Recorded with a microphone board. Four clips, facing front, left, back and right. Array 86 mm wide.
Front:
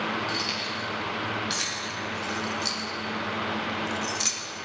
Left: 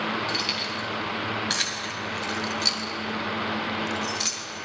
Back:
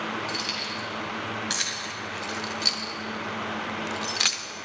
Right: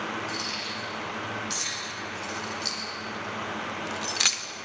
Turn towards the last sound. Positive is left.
turn(degrees=-120)